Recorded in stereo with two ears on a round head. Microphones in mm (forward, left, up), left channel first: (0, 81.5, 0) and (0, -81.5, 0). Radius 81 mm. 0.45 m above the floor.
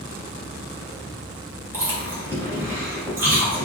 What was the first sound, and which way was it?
Chewing, 10° right (ahead or behind).